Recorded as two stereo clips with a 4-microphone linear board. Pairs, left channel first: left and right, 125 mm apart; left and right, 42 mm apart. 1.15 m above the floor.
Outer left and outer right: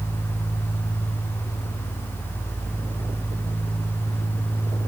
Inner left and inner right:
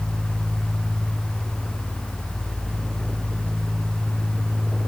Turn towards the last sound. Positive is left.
No sound to turn to.